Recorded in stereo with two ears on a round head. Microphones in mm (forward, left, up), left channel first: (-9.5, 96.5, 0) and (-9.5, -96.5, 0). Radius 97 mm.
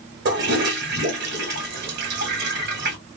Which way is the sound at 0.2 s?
50° right (ahead or behind).